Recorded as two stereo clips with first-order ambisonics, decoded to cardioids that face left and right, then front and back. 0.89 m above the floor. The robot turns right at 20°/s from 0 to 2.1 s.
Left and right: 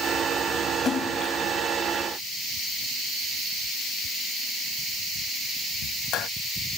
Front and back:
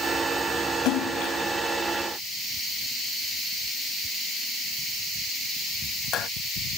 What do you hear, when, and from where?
0.8 s a splash: 25° left; by 6.3 s 50° left